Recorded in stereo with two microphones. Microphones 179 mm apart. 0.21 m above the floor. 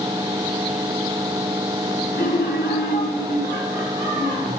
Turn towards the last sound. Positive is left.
turn(degrees=50)  # may be behind; listen again after turning